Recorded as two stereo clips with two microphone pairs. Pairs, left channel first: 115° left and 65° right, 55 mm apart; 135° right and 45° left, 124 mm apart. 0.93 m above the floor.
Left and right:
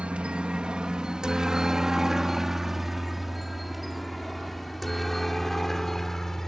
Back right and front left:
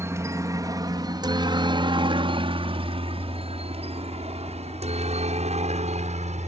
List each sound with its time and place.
0.0 s a helicopter: 10° right; by 6.5 s 35° left